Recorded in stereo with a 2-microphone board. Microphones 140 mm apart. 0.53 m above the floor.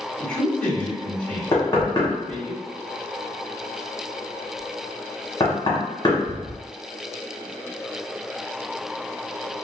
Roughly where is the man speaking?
Centre.